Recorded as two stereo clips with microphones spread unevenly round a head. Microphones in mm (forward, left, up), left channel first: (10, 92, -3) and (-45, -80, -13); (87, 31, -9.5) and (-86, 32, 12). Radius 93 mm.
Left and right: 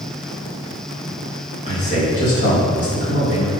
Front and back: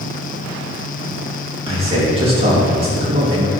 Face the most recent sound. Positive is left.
turn(degrees=125)